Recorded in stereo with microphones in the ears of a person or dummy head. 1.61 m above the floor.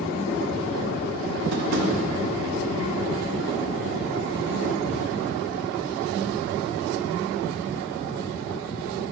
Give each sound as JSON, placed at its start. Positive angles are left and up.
{"t": 1.5, "sound": "tapping", "side_deg": -65, "distance_m": 0.8}